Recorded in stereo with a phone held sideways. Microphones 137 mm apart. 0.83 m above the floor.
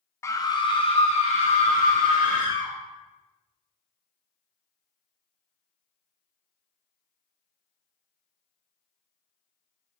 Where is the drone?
No drone in this recording.